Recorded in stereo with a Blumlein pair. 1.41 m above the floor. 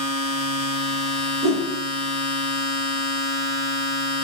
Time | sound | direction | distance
0.0 | a machine running | 15° left | 1.0 m
1.4 | a whoosh | 10° left | 1.3 m